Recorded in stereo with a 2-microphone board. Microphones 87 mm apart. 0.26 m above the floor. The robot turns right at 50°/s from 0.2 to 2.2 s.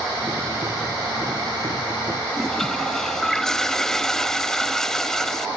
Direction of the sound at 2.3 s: 5° left (ahead or behind).